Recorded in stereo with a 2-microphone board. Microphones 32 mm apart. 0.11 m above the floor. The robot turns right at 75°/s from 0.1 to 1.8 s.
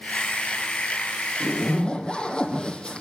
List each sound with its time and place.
1.4 s a zipper: 120° left, 2 m; by 3.0 s 150° left, 2 m